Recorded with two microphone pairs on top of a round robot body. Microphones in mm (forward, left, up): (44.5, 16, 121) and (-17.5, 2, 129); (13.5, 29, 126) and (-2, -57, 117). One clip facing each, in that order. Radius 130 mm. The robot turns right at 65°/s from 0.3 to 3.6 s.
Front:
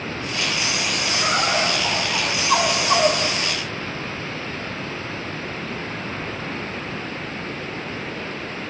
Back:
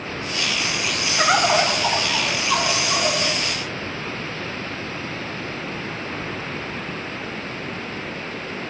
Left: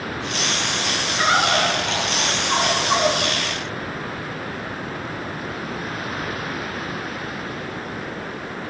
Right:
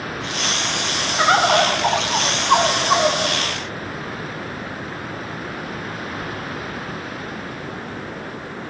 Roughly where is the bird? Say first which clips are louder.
Back 5 dB, right 4 dB; behind right.